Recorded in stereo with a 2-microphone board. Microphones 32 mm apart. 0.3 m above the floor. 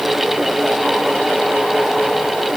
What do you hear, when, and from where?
Only background noise.